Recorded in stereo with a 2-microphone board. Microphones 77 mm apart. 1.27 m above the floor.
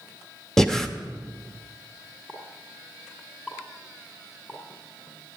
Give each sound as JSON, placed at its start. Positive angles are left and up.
{"t": 0.6, "sound": "breathing", "side_deg": 5, "distance_m": 0.7}
{"t": 2.3, "sound": "a pop", "side_deg": 10, "distance_m": 2.0}